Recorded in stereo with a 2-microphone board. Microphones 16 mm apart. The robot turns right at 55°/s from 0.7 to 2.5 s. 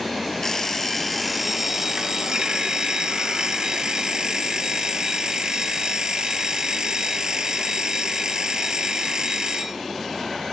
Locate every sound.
0.4 s an alarm clock: 155° left, 0.9 m; by 9.8 s 105° right, 0.9 m